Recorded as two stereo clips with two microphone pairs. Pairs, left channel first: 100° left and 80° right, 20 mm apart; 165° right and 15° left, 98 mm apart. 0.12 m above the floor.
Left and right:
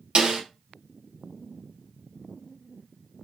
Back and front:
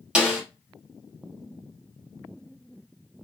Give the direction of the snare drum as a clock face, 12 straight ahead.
2 o'clock.